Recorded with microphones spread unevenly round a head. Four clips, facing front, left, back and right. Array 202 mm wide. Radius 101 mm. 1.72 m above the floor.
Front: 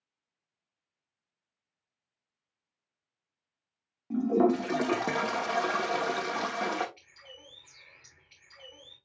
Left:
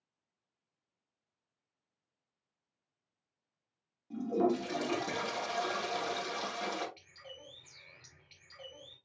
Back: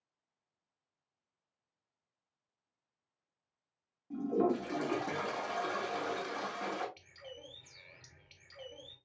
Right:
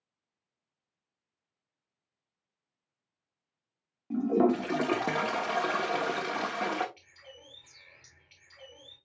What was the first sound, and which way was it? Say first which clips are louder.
A toilet flushing: right 6 dB, front 7 dB; 45° right.